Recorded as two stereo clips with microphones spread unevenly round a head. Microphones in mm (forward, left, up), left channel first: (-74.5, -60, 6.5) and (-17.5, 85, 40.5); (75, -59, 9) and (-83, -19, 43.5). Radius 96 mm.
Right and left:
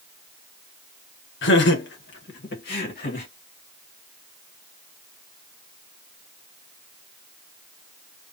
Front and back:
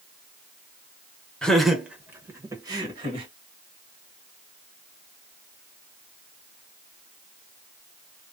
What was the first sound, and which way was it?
Laughter, 105° right.